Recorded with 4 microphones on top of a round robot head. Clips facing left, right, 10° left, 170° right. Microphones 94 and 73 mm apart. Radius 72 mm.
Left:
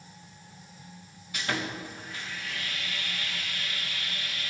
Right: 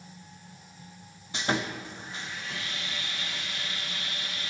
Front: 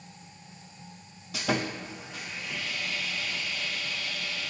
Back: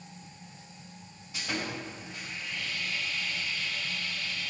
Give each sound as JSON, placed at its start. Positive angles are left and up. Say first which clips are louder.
{"t": 1.3, "sound": "sawing", "louder": "right 3 dB, front 5 dB", "azimuth_deg": -20, "distance_m": 0.7}